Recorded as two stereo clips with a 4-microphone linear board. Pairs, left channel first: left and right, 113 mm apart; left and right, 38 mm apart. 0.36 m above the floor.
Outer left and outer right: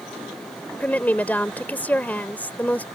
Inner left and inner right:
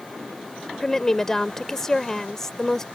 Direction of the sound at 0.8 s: 15° left (ahead or behind).